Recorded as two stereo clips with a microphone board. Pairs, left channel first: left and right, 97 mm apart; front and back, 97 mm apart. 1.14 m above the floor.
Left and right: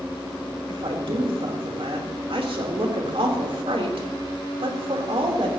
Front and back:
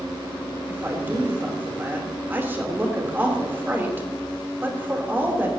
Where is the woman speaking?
110° right, 3.5 m.